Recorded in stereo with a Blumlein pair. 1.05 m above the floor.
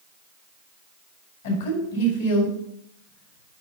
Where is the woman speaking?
65° left, 3.5 m.